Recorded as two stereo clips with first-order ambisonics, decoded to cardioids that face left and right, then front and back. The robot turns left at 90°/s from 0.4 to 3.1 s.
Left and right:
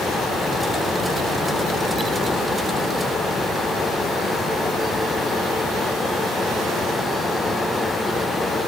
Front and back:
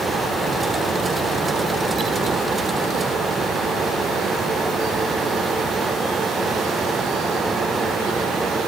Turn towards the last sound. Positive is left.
No sound to turn to.